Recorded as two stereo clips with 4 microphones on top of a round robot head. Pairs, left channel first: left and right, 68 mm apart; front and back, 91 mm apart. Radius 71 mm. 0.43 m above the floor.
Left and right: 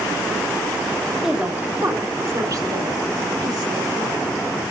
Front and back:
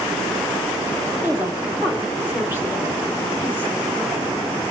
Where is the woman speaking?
170° right, 1.1 m; by 4.2 s 105° right, 5 m.